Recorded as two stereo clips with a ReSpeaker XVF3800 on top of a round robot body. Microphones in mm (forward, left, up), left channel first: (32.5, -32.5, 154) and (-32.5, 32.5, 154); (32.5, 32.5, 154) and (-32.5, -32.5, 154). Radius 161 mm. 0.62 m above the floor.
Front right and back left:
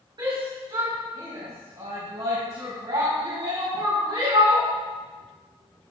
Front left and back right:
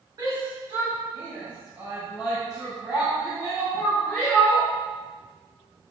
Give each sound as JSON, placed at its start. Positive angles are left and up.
{"t": 0.2, "sound": "a shout", "azimuth_deg": 175, "distance_m": 4.0}